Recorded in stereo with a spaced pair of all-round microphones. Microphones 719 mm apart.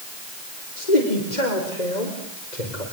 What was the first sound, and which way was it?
A man speaking, 70° left (ahead or behind).